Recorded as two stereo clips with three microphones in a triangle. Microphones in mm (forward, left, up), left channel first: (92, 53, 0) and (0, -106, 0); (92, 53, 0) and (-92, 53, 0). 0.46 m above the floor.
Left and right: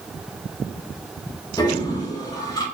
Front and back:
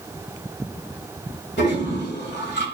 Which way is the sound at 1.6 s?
10° right.